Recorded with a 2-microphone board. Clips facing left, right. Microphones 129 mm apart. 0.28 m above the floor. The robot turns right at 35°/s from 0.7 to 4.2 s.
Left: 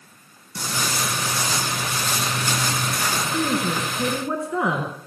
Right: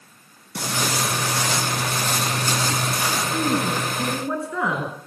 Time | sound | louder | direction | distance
0.6 | footsteps | right 2 dB | 70° right (ahead or behind) | 4 m
3.3 | a woman speaking | even | 10° right | 4 m